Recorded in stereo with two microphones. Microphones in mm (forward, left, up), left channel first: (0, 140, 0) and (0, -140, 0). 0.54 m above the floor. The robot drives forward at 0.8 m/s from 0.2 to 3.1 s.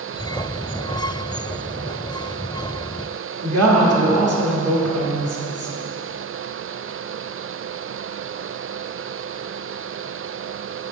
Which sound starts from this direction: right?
A woman speaking, at 3.4 s.